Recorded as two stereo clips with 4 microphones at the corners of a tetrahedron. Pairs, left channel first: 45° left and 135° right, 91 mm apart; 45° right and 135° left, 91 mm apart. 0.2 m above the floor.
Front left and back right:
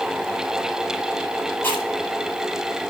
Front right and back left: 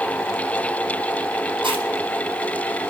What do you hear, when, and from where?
1.6 s chewing: 110° left, 7 m